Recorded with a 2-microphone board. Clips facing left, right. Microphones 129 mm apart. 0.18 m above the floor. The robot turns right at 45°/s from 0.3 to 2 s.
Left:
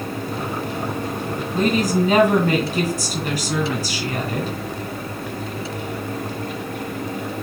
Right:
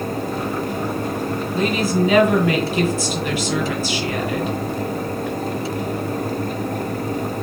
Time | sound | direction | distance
1.5 | a woman speaking | 45° left (ahead or behind) | 2 m